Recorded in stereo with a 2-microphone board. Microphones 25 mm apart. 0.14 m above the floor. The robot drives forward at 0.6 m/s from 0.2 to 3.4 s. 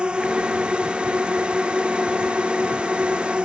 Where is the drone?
40° right (ahead or behind).